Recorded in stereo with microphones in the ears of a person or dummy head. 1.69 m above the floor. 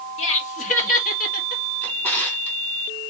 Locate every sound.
0.2 s laughter: 40° left (ahead or behind), 2.5 m; by 1.6 s 60° left (ahead or behind), 1.5 m
1.8 s a drawer: 10° left (ahead or behind), 2.5 m